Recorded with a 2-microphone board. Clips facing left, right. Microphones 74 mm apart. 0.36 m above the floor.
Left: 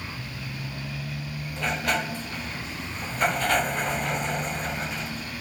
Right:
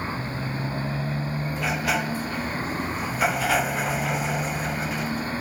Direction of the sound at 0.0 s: 40° right (ahead or behind).